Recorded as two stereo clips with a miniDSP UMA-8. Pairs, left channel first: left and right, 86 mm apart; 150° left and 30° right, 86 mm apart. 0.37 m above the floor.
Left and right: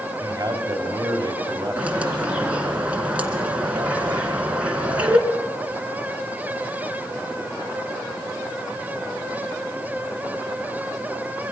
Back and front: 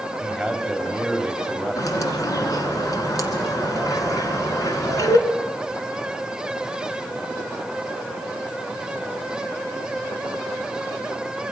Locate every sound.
0.2 s a man speaking: 115° right, 1.9 m
1.8 s a bird: 165° right, 2.5 m